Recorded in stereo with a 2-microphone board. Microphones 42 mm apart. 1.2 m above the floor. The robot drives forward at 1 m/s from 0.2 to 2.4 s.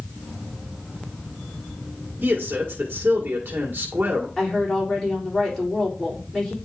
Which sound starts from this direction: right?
A man speaking, at 2.2 s.